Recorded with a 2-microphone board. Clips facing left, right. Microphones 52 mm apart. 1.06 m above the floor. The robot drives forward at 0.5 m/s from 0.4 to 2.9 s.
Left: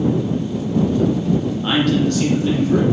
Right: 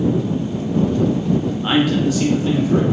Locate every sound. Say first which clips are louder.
1.6 s a man speaking: right 1 dB; 10° right (ahead or behind), 0.5 m; by 2.8 s 5° right (ahead or behind), 0.9 m